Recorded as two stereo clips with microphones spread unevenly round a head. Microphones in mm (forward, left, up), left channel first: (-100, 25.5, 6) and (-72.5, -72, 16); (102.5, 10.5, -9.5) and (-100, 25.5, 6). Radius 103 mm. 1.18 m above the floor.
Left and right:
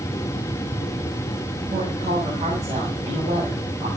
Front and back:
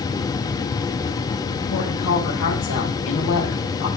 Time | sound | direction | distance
1.7 | a woman speaking | 20° right | 6.5 m